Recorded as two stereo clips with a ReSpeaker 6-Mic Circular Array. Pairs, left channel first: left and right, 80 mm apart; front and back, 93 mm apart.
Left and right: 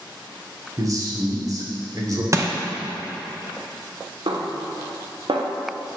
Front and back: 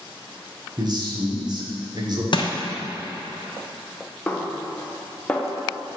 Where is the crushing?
35° right, 0.7 m.